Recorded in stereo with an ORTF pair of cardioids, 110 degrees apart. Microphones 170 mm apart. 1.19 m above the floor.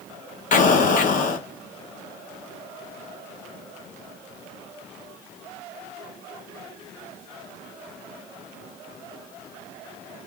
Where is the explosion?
55° left, 0.7 m.